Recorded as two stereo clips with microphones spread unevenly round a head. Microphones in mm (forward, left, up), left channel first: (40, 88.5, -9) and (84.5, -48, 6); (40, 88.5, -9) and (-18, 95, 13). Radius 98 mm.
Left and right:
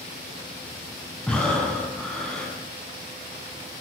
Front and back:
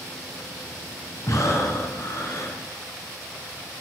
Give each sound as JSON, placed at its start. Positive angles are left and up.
{"t": 1.3, "sound": "breathing", "azimuth_deg": 25, "distance_m": 9.5}